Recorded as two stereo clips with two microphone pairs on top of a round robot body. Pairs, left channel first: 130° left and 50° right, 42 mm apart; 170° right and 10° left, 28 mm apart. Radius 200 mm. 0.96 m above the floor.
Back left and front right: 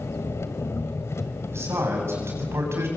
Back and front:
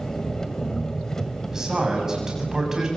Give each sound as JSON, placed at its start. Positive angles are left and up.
{"t": 0.0, "sound": "an engine running", "azimuth_deg": 120, "distance_m": 1.9}
{"t": 1.5, "sound": "a man speaking", "azimuth_deg": -55, "distance_m": 7.5}